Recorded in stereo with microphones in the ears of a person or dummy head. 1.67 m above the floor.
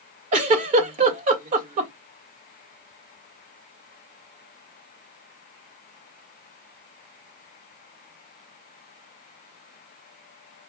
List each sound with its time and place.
0.3 s a giggle: 40° right (ahead or behind), 1.8 m